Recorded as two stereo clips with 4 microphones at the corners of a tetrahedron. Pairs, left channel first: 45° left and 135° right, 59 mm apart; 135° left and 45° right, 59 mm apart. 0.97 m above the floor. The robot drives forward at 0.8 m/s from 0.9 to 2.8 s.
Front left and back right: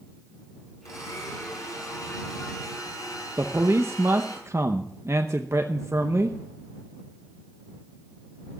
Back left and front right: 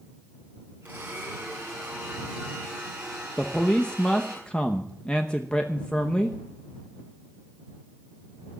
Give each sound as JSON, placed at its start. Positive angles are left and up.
{"t": 0.8, "sound": "a blender", "azimuth_deg": 20, "distance_m": 6.0}
{"t": 3.4, "sound": "a man speaking", "azimuth_deg": -160, "distance_m": 0.8}